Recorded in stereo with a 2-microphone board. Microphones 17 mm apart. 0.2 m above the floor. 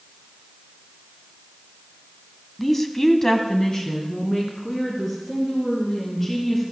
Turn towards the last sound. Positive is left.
turn(degrees=30)  # may be behind; listen again after turning